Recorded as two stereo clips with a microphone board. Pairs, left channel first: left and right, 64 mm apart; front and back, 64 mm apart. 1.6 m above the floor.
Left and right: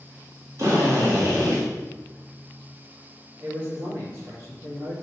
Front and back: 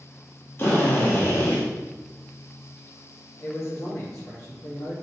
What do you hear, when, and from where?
0.6 s a drill: 50° right, 2 m
3.4 s a man speaking: 40° right, 3.5 m